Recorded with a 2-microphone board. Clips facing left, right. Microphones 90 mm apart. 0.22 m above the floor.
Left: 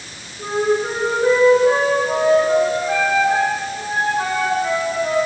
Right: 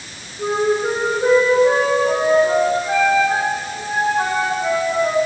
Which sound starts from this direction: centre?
A flute, at 0.4 s.